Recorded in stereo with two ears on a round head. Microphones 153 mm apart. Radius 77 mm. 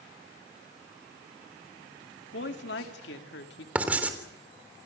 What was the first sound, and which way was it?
A woman speaking, 75° left (ahead or behind).